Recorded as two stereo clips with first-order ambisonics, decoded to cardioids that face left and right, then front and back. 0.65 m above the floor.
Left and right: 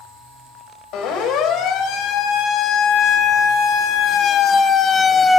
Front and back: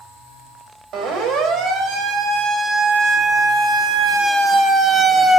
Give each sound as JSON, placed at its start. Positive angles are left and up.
{"t": 0.9, "sound": "a siren", "azimuth_deg": 130, "distance_m": 3.5}